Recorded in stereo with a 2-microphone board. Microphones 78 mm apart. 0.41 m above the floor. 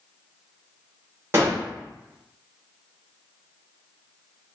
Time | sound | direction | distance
1.3 | a gunshot | 30° right (ahead or behind) | 1.1 m